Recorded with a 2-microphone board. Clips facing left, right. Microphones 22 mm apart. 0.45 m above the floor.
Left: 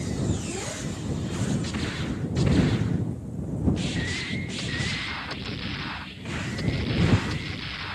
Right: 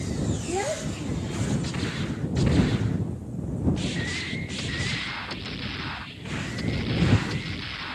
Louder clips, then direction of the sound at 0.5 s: Right 5 dB; 80° right.